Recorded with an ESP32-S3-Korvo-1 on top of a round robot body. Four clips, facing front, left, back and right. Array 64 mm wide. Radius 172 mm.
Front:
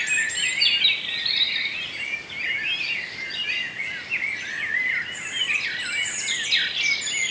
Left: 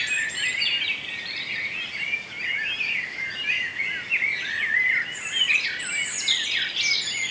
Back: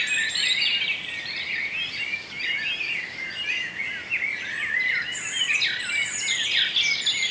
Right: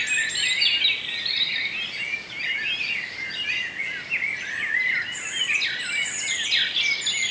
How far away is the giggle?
I don't hear a giggle.